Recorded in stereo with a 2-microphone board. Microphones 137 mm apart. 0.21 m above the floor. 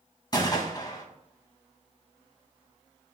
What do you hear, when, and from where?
0.3 s a gunshot: 30° left (ahead or behind), 1.4 m